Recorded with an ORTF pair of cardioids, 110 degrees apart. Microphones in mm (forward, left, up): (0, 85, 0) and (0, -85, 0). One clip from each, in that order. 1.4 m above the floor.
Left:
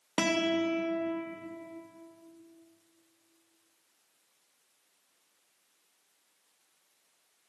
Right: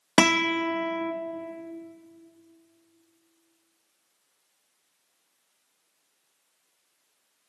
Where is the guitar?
55° right, 0.7 m.